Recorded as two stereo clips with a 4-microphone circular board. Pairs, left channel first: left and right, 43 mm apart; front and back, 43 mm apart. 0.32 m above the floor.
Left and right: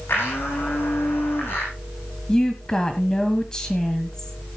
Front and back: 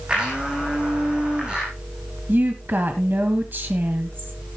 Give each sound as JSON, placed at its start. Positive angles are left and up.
{"t": 0.1, "sound": "a blender", "azimuth_deg": 115, "distance_m": 6.0}
{"t": 2.3, "sound": "a woman speaking", "azimuth_deg": 160, "distance_m": 1.7}